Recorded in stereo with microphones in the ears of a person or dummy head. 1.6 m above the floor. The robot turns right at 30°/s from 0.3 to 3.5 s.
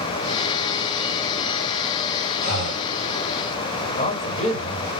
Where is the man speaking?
35° left (ahead or behind), 1.6 m.